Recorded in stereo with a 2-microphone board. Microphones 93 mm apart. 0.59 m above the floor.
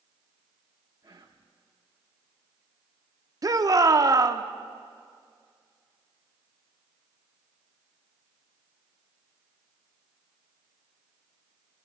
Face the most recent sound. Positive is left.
turn(degrees=-40)  # may be behind; listen again after turning